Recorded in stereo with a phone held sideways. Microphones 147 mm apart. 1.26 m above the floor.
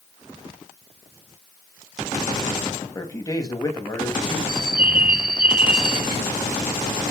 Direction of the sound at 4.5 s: 80° right.